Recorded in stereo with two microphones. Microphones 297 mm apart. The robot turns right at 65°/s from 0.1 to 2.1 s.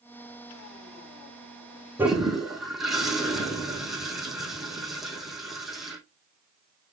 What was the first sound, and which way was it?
A toilet flushing, 10° right (ahead or behind).